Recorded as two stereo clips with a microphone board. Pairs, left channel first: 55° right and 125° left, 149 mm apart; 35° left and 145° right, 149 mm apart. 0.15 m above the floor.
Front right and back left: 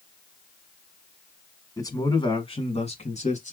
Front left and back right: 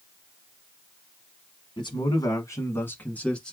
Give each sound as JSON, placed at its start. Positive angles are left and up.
{"t": 1.8, "sound": "a man speaking", "azimuth_deg": 0, "distance_m": 1.3}